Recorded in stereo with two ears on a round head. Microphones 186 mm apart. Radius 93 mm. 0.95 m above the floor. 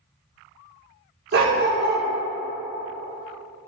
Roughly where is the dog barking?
Right.